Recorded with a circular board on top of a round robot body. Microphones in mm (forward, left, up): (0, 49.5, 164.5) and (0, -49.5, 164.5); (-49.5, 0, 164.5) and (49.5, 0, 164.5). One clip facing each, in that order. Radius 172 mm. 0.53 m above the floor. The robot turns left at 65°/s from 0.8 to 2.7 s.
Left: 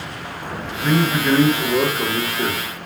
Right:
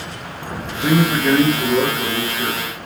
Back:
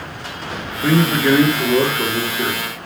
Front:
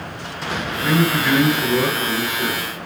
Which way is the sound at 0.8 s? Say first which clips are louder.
Right 2 dB, back 3 dB; 115° right.